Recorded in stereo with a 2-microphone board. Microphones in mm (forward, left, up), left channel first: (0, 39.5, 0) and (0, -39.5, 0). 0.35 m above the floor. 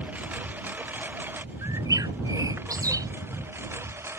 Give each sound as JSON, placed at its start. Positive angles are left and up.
{"t": 0.0, "sound": "a lawn mower", "side_deg": -20}
{"t": 1.6, "sound": "a bird", "side_deg": -50}